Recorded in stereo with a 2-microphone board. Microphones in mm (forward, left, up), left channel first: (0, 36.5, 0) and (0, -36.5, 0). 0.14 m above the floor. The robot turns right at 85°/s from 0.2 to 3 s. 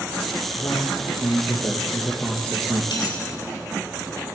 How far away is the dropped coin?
About 5 m.